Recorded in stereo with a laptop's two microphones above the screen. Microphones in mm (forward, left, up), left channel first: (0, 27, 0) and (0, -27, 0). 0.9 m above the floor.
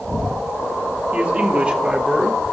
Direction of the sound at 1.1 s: 25° right (ahead or behind).